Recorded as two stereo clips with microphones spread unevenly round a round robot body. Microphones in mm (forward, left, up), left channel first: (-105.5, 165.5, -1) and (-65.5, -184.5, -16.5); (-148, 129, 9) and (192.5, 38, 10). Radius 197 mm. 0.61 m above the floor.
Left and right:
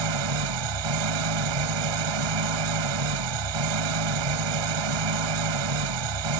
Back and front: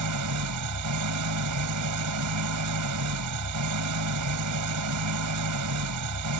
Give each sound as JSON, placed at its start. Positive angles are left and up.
{"t": 0.0, "sound": "an engine running", "azimuth_deg": -60}